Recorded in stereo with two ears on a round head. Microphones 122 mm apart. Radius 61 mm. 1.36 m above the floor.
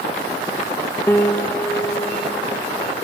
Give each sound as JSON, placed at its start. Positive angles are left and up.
{"t": 1.1, "sound": "a piano", "side_deg": 15, "distance_m": 0.5}